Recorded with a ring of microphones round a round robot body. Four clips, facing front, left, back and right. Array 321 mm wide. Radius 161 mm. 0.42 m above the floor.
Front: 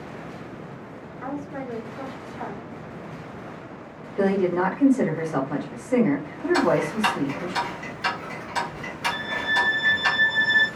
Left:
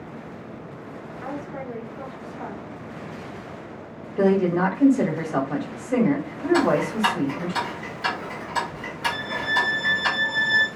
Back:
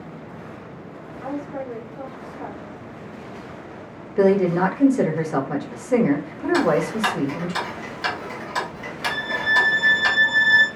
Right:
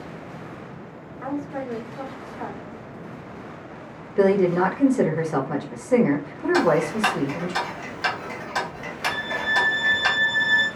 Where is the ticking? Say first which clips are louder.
Right 1 dB, back 2 dB; 130° right, 1.6 m.